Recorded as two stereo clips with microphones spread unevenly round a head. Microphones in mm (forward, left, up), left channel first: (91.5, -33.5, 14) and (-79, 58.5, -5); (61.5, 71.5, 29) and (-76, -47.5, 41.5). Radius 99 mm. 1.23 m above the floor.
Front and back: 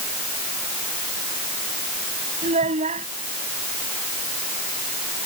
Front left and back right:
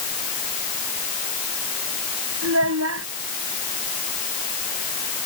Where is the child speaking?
150° right.